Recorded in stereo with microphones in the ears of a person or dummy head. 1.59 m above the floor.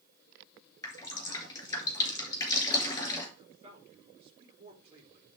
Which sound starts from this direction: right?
A man speaking, at 3.4 s.